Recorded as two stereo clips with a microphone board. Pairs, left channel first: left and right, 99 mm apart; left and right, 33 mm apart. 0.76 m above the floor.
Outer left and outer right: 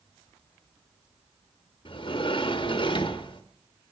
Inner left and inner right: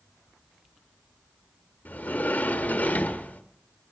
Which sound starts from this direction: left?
A sliding door, at 1.9 s.